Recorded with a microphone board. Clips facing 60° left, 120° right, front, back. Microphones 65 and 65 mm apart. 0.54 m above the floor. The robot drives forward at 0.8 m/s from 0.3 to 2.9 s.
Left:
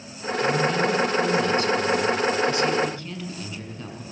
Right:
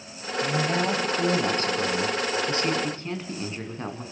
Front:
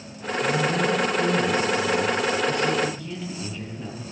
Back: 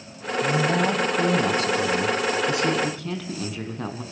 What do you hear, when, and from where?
0.4 s a man speaking: 170° right, 3 m; by 4.0 s 175° right, 5 m